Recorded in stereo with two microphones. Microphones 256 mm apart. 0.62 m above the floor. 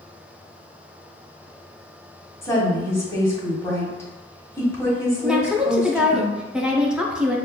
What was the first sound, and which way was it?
A woman speaking, 10° left (ahead or behind).